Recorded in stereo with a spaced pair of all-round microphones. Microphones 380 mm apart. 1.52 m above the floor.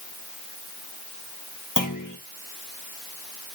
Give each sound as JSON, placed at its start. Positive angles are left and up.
{"t": 1.8, "sound": "a clunk", "side_deg": 55, "distance_m": 1.4}